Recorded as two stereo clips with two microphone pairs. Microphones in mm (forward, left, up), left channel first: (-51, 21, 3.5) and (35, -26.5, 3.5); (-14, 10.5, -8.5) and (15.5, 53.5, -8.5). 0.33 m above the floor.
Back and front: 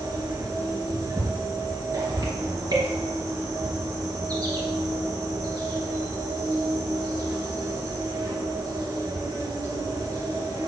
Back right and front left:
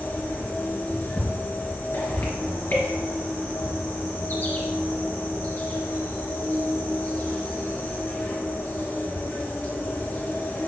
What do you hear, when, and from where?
0.0 s an insect: 80° right, 2.5 m